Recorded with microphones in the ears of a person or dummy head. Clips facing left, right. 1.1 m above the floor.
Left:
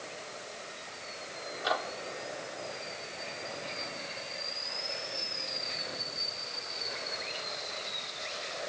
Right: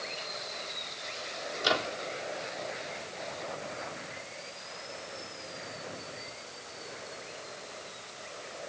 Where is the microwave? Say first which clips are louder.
Right 2 dB; 40° right (ahead or behind).